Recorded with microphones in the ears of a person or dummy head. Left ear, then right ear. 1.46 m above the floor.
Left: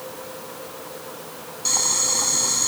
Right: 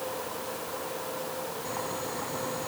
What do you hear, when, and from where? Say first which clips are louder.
1.6 s boiling: left 16 dB; 85° left